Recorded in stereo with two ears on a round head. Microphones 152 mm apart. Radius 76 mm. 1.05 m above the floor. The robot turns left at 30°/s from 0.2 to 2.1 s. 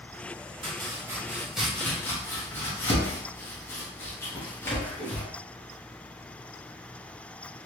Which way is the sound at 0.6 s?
30° right (ahead or behind).